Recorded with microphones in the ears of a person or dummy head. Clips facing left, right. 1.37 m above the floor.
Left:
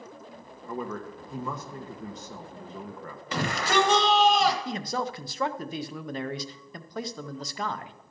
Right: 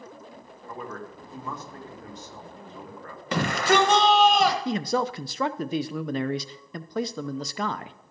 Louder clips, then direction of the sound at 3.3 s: Right 4 dB; 45° right (ahead or behind).